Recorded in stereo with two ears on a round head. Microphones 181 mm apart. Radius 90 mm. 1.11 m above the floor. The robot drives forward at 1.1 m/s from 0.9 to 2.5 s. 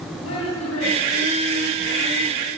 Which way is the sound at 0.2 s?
80° left.